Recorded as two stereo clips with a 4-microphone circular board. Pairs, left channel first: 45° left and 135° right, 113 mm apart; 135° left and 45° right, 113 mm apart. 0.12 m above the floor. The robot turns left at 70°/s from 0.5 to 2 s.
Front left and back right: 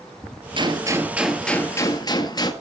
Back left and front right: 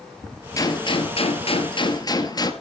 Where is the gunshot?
170° right, 1.8 m; by 2.5 s 90° left, 1.8 m.